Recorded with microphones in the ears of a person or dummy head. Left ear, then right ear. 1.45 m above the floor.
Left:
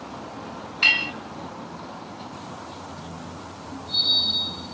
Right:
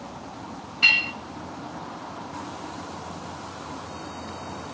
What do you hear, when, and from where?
0.8 s a clink: 30° left (ahead or behind), 1.8 m